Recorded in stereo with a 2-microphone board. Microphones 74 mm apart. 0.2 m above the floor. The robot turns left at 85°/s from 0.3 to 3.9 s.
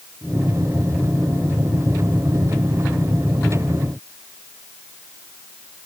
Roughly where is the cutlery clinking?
I don't hear cutlery clinking.